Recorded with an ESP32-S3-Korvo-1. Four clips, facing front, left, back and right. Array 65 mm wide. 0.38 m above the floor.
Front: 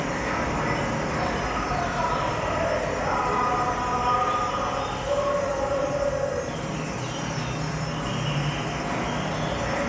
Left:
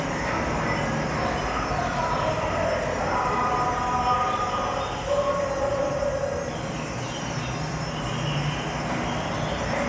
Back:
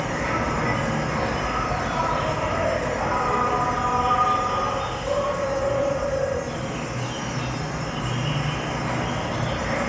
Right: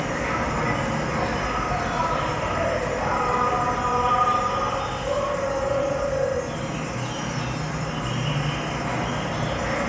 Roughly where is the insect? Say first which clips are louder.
Right 1 dB, back 2 dB; behind right.